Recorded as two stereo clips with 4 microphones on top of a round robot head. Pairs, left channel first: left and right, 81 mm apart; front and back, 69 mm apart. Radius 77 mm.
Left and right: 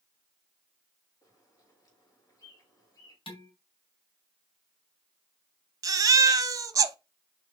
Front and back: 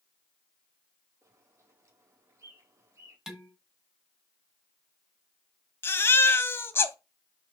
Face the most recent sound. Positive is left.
turn(degrees=-50)